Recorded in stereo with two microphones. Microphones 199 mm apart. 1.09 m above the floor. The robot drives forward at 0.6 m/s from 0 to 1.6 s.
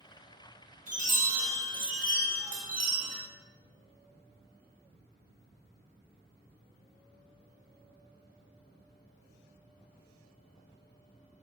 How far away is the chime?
About 0.9 m.